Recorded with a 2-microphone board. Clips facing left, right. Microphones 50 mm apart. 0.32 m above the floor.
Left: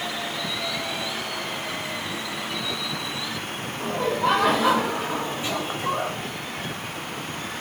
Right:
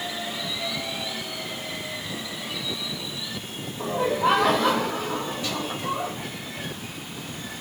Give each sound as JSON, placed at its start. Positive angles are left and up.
{"t": 3.8, "sound": "laughter", "side_deg": -15, "distance_m": 1.2}